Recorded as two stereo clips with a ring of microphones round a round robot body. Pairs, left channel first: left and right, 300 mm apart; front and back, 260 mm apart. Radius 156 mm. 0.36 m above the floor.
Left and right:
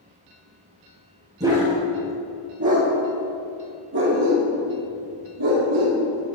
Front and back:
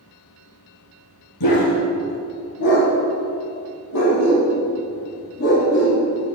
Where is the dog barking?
10° right, 4 m; by 6.3 s 55° right, 6 m.